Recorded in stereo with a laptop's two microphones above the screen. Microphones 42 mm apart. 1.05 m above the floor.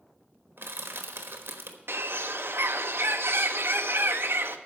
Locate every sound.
0.6 s crushing: 70° right (ahead or behind), 1.2 m
1.9 s a bird: 65° right (ahead or behind), 0.7 m